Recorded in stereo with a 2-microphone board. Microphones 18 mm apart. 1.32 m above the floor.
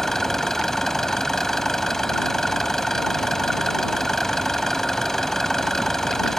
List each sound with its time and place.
0.0 s an engine running: 20° left (ahead or behind)